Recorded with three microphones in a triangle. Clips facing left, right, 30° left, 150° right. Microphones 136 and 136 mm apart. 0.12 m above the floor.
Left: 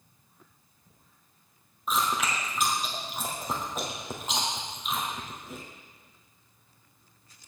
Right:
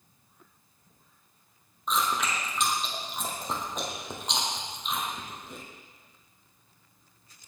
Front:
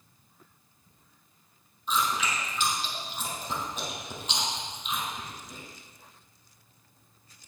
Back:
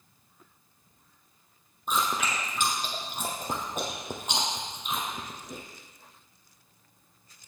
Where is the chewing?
175° left, 2 m.